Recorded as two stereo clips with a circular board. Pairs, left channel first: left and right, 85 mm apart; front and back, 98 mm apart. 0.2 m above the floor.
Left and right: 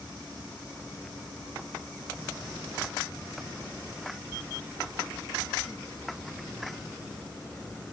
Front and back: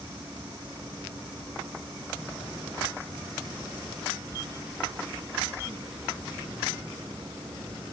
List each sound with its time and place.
Only background noise.